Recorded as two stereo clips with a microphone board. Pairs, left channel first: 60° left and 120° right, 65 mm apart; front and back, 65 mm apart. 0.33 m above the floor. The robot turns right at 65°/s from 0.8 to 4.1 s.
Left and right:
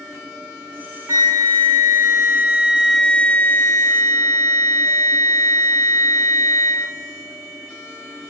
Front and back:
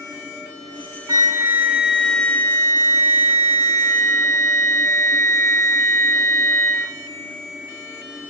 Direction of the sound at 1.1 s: 150° right.